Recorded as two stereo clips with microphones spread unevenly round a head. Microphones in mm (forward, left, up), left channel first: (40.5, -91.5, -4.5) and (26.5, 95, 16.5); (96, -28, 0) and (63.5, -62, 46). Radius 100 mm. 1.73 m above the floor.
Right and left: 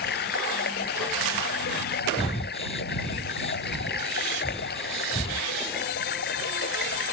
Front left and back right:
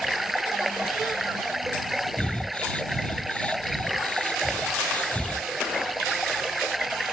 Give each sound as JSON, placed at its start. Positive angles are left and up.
{"t": 0.0, "sound": "running water", "azimuth_deg": -50}
{"t": 2.2, "sound": "breathing", "azimuth_deg": -25}